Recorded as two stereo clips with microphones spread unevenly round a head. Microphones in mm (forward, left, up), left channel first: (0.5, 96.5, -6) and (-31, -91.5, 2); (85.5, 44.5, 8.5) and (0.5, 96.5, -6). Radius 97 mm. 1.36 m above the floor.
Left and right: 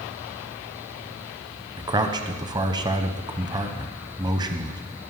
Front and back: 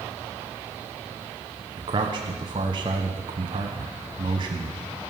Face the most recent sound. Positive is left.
turn(degrees=-170)